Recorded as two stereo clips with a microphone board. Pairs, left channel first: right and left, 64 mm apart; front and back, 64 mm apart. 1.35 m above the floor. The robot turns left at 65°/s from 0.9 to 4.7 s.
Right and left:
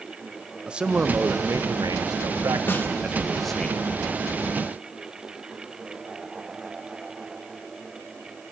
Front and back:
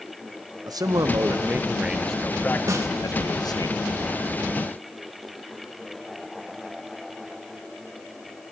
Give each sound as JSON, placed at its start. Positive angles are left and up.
{"t": 0.7, "sound": "a man speaking", "azimuth_deg": 165, "distance_m": 1.0}
{"t": 2.7, "sound": "a snare drum", "azimuth_deg": -145, "distance_m": 1.9}